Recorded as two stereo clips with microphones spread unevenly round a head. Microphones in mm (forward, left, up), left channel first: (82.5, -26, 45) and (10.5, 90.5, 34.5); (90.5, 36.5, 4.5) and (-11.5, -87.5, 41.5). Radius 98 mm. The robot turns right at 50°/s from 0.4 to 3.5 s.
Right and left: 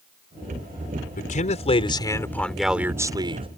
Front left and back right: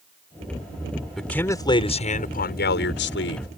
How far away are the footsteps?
I don't hear footsteps.